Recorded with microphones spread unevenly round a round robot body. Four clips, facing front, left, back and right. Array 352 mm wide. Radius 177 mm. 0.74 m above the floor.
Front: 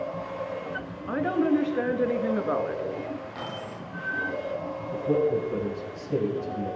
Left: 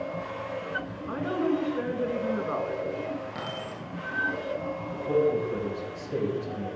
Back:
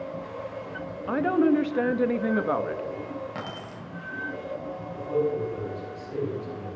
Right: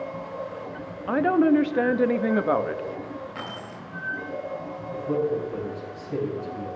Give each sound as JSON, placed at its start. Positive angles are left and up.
{"t": 1.1, "sound": "a woman speaking", "azimuth_deg": -105, "distance_m": 0.9}
{"t": 3.4, "sound": "keys jangling", "azimuth_deg": 160, "distance_m": 4.0}
{"t": 4.9, "sound": "a man speaking", "azimuth_deg": 15, "distance_m": 4.0}